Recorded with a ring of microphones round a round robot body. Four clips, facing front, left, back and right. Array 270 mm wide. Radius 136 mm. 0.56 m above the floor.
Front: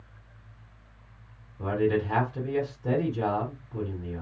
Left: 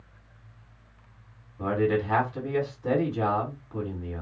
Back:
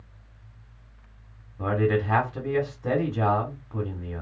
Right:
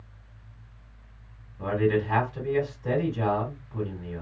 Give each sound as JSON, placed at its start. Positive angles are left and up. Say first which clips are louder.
{"t": 1.6, "sound": "a man speaking", "louder": "even, back 1 dB", "azimuth_deg": 165, "distance_m": 1.7}